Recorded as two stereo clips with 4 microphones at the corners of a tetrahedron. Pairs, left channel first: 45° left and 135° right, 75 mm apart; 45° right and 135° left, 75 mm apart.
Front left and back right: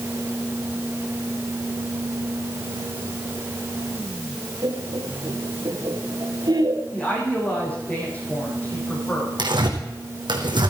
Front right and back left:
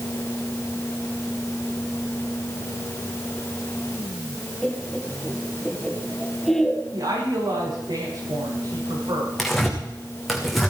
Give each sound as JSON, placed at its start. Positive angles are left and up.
{"t": 4.6, "sound": "laughter", "azimuth_deg": -125, "distance_m": 3.5}
{"t": 6.9, "sound": "a woman speaking", "azimuth_deg": 115, "distance_m": 8.0}
{"t": 9.4, "sound": "tearing paper", "azimuth_deg": -130, "distance_m": 3.0}